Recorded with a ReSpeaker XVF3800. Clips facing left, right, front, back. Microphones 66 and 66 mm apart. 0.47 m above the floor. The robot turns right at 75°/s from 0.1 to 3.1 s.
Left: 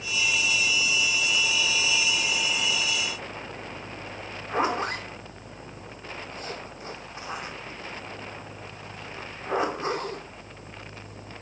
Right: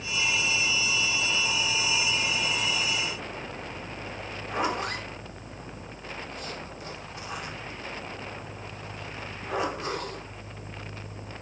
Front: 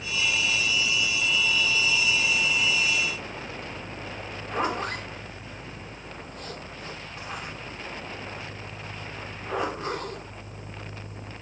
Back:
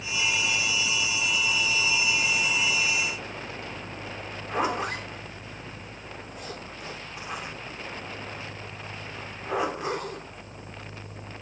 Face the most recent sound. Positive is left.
turn(degrees=115)